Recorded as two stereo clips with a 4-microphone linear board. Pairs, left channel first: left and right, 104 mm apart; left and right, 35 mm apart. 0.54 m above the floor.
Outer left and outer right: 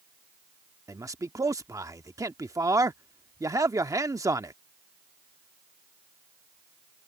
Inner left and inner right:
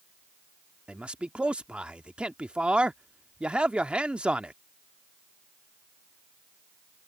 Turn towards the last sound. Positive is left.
turn(degrees=-30)  # may be behind; listen again after turning